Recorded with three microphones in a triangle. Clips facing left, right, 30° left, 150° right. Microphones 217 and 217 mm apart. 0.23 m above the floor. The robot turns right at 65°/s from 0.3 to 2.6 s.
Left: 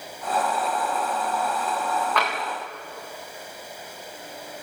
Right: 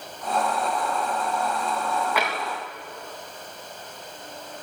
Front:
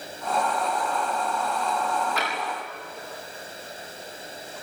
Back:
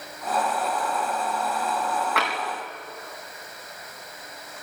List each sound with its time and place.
2.2 s tapping: 170° right, 5.5 m; by 2.4 s 160° right, 5.5 m